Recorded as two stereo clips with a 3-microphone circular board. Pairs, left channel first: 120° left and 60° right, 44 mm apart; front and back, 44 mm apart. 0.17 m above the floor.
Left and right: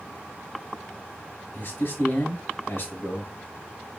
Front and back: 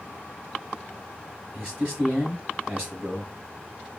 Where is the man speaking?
125° left, 3.5 m.